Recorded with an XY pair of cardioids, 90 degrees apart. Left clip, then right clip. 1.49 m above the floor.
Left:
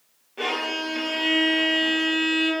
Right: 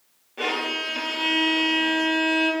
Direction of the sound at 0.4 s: 5° right.